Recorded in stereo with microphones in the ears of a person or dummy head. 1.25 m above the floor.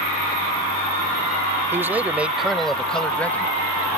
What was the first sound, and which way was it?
A man speaking, 10° right (ahead or behind).